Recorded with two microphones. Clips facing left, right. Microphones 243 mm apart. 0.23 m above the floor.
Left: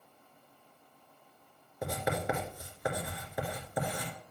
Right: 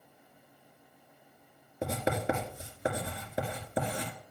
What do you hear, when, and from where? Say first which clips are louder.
1.8 s writing: right 2 dB; 25° right (ahead or behind), 2.5 m